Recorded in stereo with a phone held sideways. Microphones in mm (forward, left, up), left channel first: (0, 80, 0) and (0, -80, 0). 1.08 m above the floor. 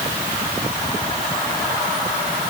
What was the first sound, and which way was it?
Only background noise.